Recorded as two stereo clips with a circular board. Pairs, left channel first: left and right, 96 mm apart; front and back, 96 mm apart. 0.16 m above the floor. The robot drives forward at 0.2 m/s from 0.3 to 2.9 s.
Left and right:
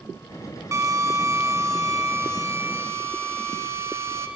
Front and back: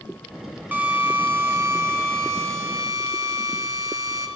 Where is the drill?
125° right, 1.5 m; by 4.3 s 140° right, 1.7 m.